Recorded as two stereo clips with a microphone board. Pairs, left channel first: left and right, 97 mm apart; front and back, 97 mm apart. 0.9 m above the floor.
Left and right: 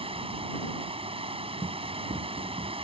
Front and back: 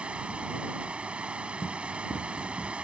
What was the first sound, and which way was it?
Running water, 100° right.